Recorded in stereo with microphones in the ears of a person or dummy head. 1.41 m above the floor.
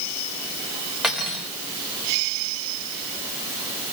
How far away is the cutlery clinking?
About 4 m.